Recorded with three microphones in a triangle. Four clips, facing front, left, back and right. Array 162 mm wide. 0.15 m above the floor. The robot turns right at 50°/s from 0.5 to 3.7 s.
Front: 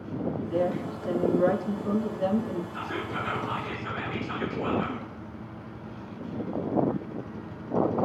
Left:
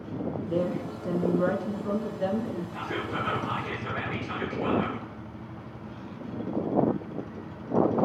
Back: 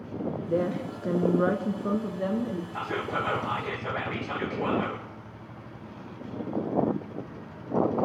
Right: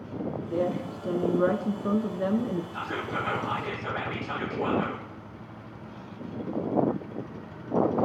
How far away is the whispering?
About 7.5 m.